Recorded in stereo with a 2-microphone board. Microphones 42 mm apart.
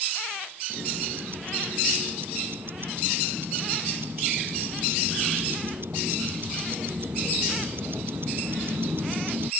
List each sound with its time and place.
0.7 s ticking: 55° right (ahead or behind)